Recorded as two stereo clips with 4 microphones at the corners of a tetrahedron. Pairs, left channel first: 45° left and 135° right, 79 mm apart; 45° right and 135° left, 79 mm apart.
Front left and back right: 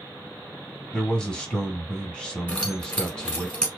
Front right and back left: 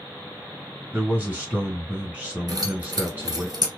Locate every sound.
0.9 s a man speaking: 105° left, 1.1 m
2.5 s keys jangling: 110° left, 1.1 m